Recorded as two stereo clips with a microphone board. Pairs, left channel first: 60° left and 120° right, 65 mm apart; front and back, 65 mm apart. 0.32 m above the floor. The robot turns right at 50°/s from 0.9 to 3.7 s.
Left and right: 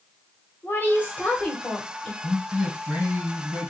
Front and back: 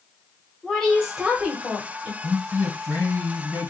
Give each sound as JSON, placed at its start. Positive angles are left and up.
{"t": 0.6, "sound": "a woman speaking", "azimuth_deg": 85, "distance_m": 1.6}
{"t": 2.2, "sound": "a man speaking", "azimuth_deg": 150, "distance_m": 2.0}